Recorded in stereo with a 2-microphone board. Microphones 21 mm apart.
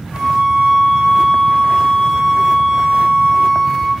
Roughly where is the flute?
Left.